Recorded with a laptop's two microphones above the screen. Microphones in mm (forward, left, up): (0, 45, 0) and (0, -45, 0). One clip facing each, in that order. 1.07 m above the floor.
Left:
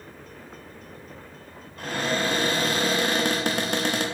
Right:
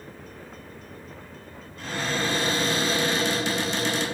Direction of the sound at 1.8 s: 55° left (ahead or behind).